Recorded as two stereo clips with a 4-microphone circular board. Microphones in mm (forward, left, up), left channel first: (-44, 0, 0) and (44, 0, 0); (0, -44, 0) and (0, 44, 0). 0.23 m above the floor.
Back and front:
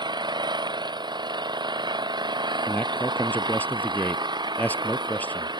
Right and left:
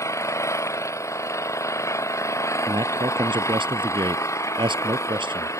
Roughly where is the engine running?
Ahead right.